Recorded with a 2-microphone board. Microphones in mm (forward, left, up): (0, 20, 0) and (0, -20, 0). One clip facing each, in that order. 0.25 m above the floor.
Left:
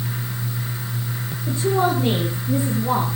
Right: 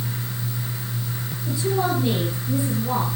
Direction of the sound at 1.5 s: 50° left (ahead or behind).